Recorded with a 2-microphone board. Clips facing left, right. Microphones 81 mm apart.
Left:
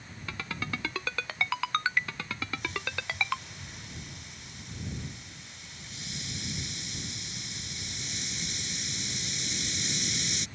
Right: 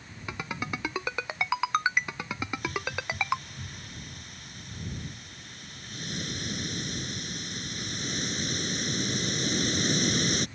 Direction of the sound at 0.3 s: 20° right (ahead or behind).